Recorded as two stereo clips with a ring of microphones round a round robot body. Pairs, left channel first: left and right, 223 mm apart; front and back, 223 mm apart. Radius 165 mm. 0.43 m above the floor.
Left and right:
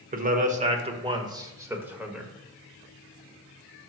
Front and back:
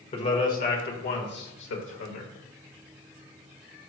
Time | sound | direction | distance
0.1 | a man speaking | 55° right | 1.4 m